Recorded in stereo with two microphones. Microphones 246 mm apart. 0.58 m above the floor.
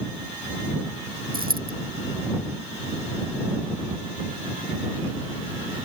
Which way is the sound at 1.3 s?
35° right (ahead or behind).